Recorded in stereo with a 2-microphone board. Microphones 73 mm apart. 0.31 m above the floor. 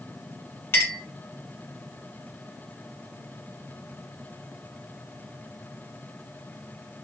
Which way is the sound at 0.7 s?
35° left (ahead or behind).